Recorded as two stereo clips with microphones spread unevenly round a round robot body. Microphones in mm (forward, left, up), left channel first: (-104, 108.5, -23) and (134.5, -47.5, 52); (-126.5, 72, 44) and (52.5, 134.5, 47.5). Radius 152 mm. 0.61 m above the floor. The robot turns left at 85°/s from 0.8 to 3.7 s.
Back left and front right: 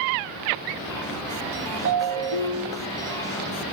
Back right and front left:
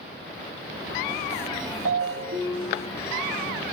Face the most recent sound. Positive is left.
turn(degrees=-140)